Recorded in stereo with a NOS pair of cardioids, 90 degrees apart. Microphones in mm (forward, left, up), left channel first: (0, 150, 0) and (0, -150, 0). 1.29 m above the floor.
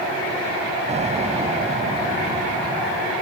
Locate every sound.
0.9 s an explosion: 20° right